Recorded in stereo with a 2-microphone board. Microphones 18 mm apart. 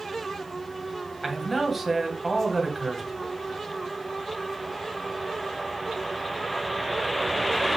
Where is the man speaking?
Centre (ahead or behind), 3 m.